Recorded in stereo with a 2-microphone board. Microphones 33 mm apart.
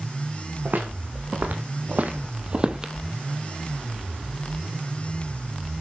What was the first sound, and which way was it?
Footsteps, 60° right (ahead or behind).